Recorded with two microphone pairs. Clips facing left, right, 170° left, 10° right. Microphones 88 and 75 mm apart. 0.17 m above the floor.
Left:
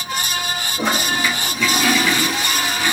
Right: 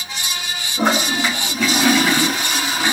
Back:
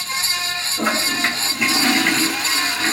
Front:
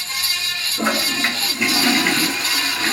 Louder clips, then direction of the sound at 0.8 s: Right 3 dB, even; 95° right.